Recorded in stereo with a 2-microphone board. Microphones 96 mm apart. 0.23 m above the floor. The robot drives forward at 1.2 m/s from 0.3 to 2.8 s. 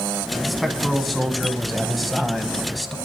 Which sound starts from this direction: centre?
A man speaking, at 0.5 s.